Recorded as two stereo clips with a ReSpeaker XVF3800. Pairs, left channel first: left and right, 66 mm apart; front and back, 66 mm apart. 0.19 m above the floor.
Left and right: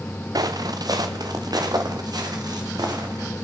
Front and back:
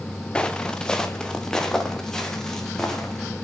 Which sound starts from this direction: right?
Footsteps, at 0.3 s.